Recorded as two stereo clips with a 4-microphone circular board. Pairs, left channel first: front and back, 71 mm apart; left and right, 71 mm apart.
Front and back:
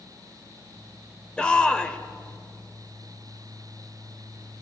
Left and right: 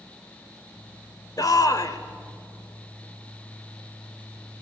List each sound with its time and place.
1.4 s a shout: 75° left, 1.5 m